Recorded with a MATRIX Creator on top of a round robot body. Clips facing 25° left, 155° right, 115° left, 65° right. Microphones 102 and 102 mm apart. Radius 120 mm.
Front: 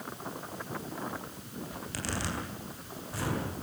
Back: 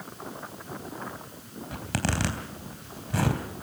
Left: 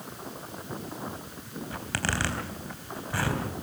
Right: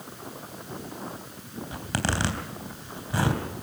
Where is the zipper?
135° right, 3.5 m.